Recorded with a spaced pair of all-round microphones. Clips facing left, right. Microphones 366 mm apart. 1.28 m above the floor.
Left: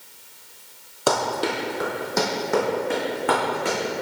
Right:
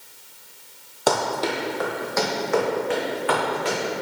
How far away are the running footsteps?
About 1.4 m.